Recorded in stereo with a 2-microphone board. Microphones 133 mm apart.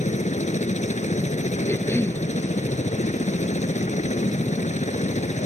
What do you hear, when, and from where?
0.0 s a helicopter: 60° left (ahead or behind)
1.7 s a cough: 15° left (ahead or behind)